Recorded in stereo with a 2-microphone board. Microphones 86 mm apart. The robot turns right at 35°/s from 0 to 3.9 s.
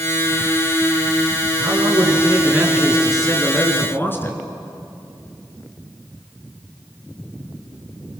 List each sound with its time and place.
1.6 s a man speaking: 55° right, 3.5 m; by 4.4 s 25° left, 3.5 m